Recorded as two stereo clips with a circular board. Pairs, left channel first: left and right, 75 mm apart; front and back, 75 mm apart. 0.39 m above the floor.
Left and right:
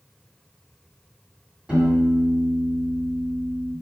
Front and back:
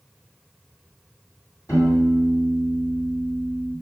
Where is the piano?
15° right, 2.0 m.